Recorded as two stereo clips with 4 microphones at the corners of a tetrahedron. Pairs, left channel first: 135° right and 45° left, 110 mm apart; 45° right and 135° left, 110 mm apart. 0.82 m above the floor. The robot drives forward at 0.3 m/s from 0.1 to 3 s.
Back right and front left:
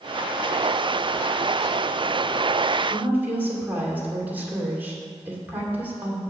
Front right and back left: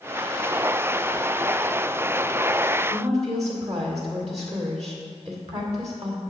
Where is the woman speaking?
120° left, 2 m.